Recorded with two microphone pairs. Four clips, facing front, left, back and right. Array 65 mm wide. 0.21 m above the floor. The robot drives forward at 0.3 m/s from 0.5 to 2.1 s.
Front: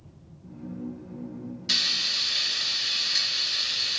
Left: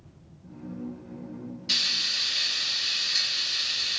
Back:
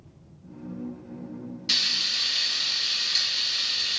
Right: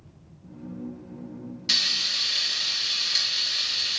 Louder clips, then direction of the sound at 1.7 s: Right 2 dB, even; 110° right.